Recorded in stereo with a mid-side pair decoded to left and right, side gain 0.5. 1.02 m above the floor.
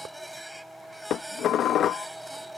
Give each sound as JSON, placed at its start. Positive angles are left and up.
{"t": 0.0, "sound": "a machine running", "azimuth_deg": 0}
{"t": 1.1, "sound": "dishes clattering", "azimuth_deg": 60}